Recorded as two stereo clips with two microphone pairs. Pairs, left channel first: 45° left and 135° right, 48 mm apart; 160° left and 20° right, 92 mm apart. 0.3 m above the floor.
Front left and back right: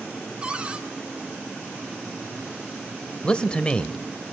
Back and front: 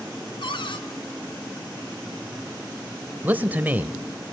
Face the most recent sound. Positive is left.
turn(degrees=15)